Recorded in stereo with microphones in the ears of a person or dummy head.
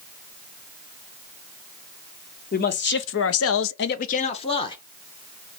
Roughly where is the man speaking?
Left.